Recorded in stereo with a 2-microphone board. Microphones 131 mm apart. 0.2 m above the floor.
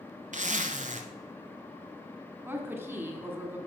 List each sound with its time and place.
0.3 s a zipper: 70° right (ahead or behind), 0.8 m
2.4 s a woman speaking: 15° right (ahead or behind), 1.6 m